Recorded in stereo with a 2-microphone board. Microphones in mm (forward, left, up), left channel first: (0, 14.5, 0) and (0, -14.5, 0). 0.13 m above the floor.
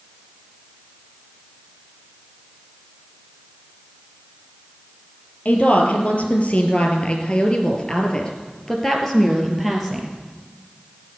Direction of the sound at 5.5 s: 60° left (ahead or behind).